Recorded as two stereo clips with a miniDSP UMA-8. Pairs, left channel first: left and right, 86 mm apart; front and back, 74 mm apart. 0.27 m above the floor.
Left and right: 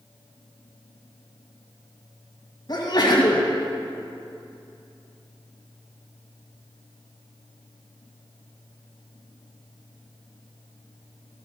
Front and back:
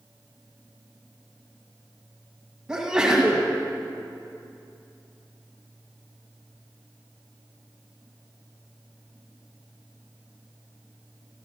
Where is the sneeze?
105° left, 1.8 m.